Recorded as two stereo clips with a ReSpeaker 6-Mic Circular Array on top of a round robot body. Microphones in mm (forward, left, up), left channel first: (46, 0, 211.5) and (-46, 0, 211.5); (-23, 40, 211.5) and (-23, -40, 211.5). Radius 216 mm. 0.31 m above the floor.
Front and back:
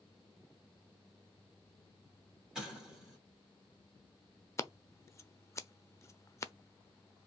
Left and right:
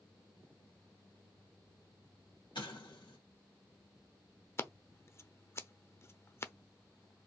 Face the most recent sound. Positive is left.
turn(degrees=45)